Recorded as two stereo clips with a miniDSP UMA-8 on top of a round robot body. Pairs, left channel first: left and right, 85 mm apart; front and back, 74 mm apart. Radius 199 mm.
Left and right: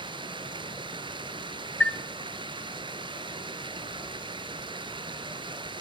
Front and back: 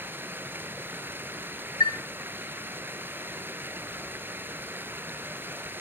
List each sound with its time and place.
0.0 s running water: 120° right, 1.8 m
1.8 s a chime: 15° left, 1.1 m